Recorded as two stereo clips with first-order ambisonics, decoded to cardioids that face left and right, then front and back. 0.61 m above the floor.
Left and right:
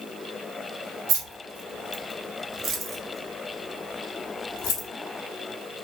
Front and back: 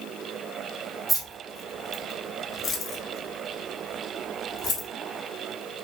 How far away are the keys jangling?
About 1.2 m.